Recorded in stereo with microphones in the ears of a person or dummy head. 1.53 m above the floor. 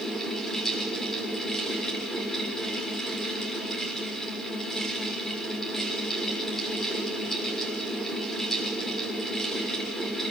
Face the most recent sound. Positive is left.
turn(degrees=0)  # may be behind; listen again after turning